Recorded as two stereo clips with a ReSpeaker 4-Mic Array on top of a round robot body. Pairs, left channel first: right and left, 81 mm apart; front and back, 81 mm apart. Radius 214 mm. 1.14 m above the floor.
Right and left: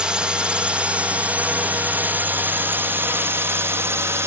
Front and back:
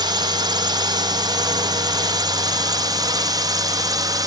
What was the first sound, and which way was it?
A drone, 170° left.